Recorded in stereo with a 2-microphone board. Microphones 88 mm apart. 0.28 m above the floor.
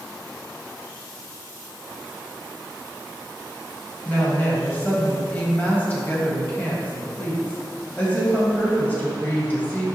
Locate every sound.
4.0 s a woman speaking: 20° left (ahead or behind), 1.7 m